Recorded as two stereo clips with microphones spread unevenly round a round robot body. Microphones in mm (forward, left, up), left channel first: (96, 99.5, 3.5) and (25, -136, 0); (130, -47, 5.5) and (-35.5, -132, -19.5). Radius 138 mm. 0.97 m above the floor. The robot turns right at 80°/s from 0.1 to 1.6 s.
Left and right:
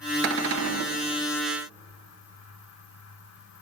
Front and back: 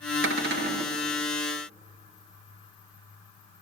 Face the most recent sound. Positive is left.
turn(degrees=-40)